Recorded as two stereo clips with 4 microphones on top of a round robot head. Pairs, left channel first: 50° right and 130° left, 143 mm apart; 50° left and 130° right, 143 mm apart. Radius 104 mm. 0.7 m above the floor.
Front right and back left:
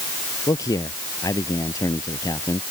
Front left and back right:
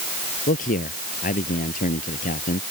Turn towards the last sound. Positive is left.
turn(degrees=20)